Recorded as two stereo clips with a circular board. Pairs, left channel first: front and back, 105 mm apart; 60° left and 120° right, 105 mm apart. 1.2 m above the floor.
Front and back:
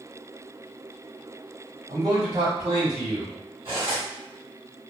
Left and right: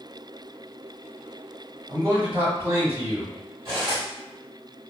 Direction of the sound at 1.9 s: 170° left.